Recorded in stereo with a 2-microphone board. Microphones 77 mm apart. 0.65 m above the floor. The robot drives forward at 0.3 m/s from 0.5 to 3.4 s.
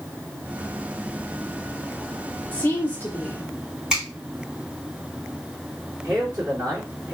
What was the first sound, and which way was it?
A woman speaking, 25° left (ahead or behind).